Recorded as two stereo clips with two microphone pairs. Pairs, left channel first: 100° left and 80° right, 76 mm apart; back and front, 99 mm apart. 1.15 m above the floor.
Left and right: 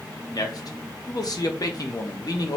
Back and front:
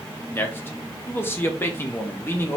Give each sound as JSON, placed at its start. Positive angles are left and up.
{"t": 0.3, "sound": "a man speaking", "azimuth_deg": 115, "distance_m": 0.8}